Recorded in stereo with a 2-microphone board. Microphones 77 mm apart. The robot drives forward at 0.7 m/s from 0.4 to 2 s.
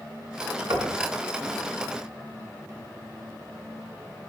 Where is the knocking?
70° right (ahead or behind), 1.7 m.